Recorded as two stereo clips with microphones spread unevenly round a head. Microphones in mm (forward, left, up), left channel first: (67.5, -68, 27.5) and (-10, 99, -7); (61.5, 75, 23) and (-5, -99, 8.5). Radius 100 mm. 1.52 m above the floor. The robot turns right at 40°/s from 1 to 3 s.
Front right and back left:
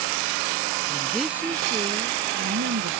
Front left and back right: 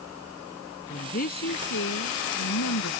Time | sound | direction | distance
0.9 | a woman speaking | 20° left | ?